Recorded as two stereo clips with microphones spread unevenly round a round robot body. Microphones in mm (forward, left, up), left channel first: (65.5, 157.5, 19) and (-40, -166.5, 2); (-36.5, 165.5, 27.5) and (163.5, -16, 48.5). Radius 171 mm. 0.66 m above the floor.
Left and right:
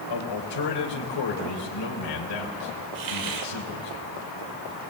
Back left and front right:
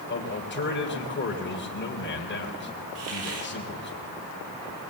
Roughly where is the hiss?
Right.